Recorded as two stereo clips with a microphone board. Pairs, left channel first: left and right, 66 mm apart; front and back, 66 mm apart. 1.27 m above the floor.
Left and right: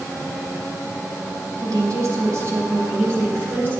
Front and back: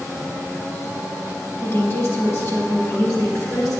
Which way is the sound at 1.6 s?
55° right.